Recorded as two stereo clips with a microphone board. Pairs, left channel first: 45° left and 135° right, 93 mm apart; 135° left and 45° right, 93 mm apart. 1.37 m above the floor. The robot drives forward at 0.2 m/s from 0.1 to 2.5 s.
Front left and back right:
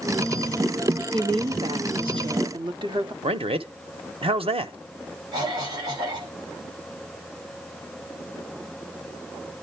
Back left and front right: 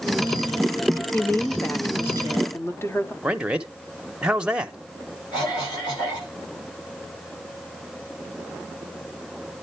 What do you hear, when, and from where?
1.1 s a woman speaking: 155° right, 0.7 m; by 3.1 s 165° right, 0.9 m
3.2 s a man speaking: 125° right, 0.9 m
5.3 s a cough: straight behind, 7 m